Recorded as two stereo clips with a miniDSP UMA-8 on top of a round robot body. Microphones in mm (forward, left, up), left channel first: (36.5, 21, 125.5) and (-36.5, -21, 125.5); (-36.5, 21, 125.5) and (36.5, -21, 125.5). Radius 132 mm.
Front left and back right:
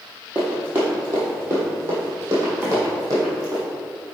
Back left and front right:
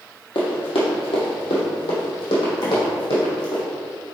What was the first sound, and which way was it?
Running footsteps, 135° left.